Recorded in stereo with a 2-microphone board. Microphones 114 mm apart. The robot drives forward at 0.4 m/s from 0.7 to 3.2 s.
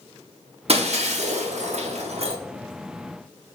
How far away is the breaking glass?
About 0.7 m.